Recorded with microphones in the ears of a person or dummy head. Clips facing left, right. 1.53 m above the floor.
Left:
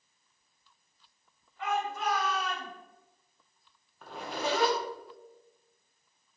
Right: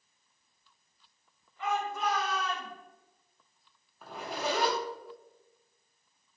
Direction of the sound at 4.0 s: 5° left (ahead or behind).